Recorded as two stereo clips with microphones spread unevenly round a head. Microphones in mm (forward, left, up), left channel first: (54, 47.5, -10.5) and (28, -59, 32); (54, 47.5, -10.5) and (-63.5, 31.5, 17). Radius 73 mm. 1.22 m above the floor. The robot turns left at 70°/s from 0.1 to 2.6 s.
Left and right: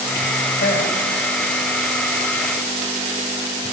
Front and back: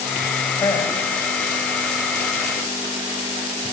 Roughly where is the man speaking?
Left.